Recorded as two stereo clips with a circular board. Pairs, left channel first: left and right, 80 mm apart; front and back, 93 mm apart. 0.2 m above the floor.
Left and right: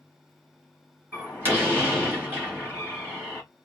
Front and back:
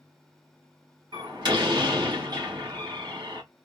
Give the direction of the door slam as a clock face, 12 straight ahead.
5 o'clock.